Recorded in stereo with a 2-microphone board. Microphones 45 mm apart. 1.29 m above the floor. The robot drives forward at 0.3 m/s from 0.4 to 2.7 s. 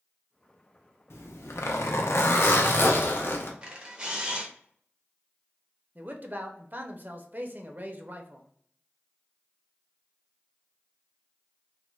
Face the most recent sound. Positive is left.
turn(degrees=-40)  # may be behind; listen again after turning